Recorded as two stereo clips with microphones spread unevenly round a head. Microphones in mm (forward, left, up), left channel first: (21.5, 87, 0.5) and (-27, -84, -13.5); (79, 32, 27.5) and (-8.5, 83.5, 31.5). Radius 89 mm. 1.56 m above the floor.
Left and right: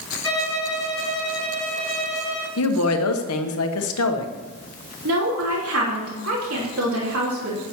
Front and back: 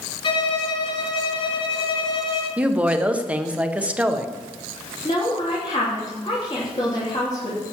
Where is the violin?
5° right, 6 m.